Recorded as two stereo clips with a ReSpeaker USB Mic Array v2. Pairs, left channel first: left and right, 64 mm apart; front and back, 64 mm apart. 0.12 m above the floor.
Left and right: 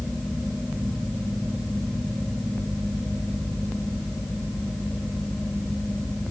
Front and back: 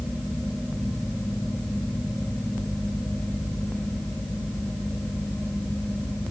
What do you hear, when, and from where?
Only background noise.